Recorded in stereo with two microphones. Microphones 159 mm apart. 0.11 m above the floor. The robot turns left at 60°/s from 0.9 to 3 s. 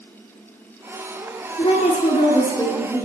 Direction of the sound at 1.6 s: 105° left.